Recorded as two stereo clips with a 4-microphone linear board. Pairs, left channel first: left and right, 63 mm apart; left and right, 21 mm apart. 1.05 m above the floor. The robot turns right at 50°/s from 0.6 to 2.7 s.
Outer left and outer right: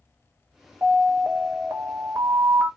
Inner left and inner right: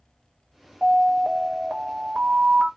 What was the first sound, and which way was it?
An alarm, 115° right.